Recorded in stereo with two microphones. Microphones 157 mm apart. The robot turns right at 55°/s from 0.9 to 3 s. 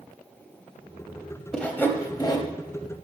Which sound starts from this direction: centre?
Sawing, at 1.5 s.